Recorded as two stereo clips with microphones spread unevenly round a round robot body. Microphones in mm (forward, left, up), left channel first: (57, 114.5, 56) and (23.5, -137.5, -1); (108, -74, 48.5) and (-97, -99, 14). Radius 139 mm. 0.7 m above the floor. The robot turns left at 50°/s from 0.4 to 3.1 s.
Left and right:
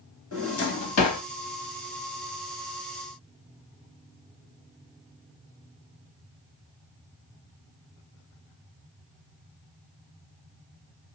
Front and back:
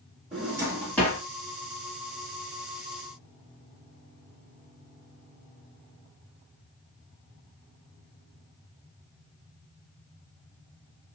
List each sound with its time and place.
0.3 s a drawer: 115° left, 1.0 m; by 1.2 s 75° left, 1.0 m